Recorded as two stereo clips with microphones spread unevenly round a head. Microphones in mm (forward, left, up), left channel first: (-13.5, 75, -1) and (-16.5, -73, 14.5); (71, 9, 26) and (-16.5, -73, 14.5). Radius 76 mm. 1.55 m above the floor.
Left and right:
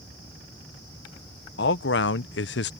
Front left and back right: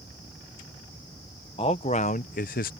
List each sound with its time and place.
1.6 s a man speaking: 100° left; by 2.7 s 65° left